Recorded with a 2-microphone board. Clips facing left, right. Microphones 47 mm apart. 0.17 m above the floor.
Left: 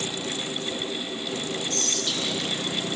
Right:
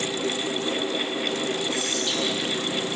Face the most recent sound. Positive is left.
turn(degrees=-10)  # may be behind; listen again after turning